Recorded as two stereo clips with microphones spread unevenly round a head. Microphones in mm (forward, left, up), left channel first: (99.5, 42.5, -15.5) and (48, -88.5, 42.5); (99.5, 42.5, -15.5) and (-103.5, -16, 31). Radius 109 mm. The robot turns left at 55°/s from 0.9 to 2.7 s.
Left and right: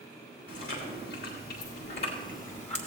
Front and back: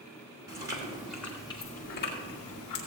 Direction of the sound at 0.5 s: 125° left.